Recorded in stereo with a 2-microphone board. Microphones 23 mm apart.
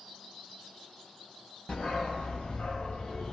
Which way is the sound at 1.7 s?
55° left (ahead or behind).